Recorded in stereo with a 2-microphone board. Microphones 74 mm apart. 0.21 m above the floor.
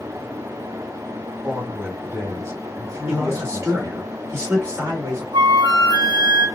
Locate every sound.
1.4 s a woman speaking: 25° right (ahead or behind), 1.3 m; by 4.1 s 55° right (ahead or behind), 2.0 m
3.1 s a man speaking: 40° right (ahead or behind), 2 m
5.3 s a flute: 85° right, 0.9 m